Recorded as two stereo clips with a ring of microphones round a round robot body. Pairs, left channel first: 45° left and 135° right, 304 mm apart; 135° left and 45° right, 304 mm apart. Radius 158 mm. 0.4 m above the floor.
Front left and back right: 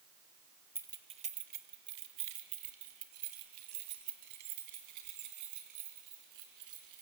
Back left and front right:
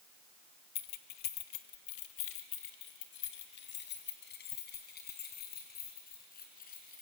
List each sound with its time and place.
0.8 s keys jangling: 145° left, 0.9 m; by 7.0 s 160° right, 4 m